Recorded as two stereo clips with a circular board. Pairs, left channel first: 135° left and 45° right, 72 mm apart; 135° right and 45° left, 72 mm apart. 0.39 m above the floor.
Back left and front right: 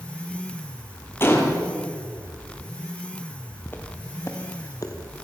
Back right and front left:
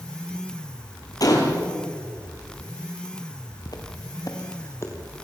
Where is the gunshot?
170° right, 4.5 m.